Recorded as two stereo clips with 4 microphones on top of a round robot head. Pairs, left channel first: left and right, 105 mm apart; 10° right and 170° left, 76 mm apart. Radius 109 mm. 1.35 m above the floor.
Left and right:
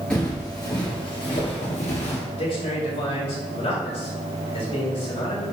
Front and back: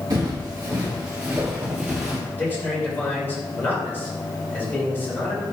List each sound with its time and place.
0.1 s footsteps: 165° left, 1.5 m; by 2.2 s 90° left, 2 m
2.3 s a man speaking: 55° left, 3 m